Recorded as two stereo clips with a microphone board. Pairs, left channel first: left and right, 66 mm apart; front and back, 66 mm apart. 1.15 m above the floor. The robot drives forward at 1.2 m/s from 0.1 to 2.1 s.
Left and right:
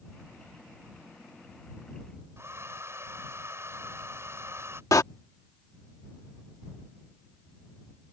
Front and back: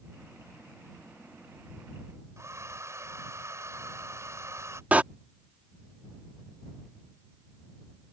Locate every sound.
2.4 s a hair dryer: 140° right
4.9 s a door slam: 115° left